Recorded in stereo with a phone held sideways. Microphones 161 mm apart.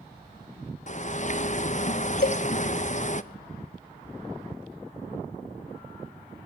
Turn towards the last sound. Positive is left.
turn(degrees=70)  # may be behind; listen again after turning